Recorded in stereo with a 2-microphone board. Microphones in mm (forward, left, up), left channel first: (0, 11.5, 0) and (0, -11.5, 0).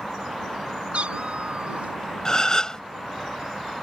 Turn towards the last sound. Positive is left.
turn(degrees=25)  # may be behind; listen again after turning